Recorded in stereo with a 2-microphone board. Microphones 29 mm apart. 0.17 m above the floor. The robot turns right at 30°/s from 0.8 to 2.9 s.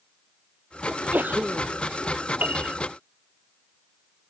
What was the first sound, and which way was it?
A sneeze, 65° right (ahead or behind).